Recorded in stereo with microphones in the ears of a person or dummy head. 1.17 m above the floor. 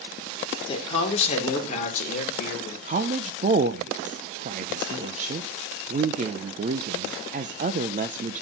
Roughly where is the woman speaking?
Right.